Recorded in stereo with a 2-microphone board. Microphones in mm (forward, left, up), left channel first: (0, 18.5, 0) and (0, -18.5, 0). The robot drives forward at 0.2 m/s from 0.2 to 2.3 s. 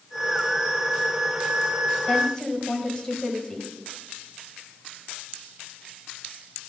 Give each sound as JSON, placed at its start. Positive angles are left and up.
{"t": 2.1, "sound": "a woman speaking", "side_deg": 15, "distance_m": 1.3}